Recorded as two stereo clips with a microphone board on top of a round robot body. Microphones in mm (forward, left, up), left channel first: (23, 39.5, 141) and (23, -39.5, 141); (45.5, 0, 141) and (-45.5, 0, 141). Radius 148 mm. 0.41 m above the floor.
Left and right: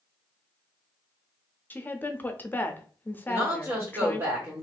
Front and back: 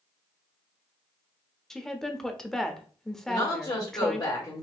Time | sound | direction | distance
1.7 | a woman speaking | 80° left | 0.7 m
3.3 | a woman speaking | 40° right | 1.7 m